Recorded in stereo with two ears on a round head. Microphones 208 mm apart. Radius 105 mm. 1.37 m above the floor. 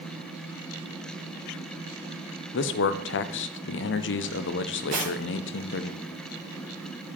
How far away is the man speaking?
About 0.5 m.